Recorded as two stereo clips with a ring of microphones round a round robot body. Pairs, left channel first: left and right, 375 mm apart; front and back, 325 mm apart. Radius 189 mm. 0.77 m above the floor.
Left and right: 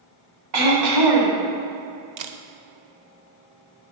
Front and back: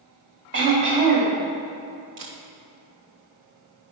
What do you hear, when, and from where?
0.5 s throat clearing: 120° right, 1.5 m
2.2 s a camera shutter: 125° right, 0.5 m